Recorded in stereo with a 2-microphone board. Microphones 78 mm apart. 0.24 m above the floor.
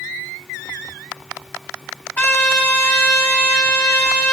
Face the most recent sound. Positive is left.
turn(degrees=30)  # may be behind; listen again after turning